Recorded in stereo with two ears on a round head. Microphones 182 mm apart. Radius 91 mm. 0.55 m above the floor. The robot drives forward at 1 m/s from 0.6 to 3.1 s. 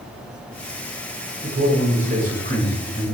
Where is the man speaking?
50° right (ahead or behind), 6 m; by 3.1 s 40° right (ahead or behind), 7 m.